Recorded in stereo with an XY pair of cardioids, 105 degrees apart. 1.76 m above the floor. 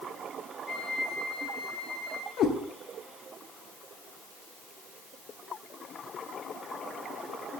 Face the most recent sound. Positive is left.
turn(degrees=70)